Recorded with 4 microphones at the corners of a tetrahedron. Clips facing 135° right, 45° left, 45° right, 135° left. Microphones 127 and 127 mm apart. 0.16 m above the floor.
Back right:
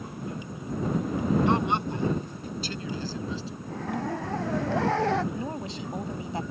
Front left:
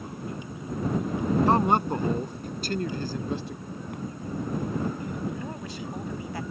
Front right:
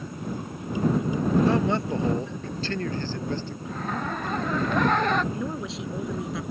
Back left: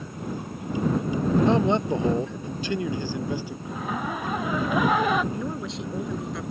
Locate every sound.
1.5 s a man speaking: 75° left; by 3.5 s 55° left
3.6 s a zipper: 140° right
5.3 s a woman speaking: 130° right